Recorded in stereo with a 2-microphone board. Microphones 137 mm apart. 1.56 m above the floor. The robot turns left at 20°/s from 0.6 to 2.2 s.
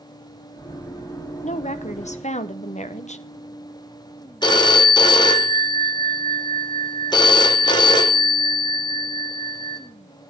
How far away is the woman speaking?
About 0.7 m.